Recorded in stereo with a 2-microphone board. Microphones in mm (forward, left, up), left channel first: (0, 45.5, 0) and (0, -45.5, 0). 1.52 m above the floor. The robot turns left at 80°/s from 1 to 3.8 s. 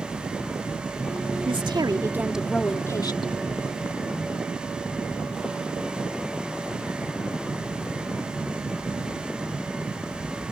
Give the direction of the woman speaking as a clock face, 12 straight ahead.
3 o'clock.